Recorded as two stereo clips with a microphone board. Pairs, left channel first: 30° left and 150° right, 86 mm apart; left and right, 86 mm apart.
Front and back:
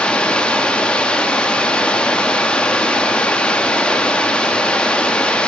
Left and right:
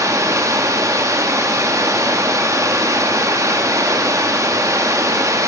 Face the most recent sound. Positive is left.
turn(degrees=-45)